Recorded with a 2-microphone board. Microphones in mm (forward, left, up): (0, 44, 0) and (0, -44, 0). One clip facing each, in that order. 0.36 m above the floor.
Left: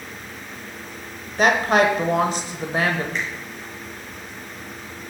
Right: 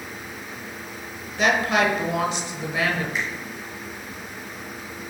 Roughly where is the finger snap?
Centre.